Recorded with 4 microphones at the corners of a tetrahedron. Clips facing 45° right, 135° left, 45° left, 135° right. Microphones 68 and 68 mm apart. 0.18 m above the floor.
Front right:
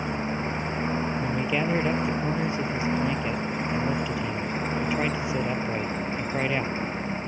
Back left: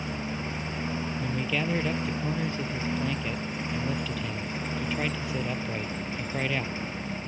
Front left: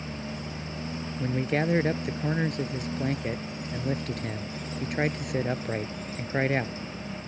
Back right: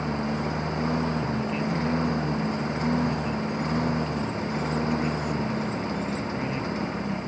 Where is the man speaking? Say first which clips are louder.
Front right 4 dB, even; 25° left.